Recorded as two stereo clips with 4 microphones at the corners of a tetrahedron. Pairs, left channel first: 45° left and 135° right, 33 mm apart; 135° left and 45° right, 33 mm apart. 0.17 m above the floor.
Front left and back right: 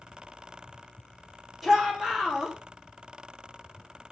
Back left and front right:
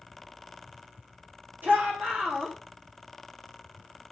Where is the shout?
45° right, 7.5 m.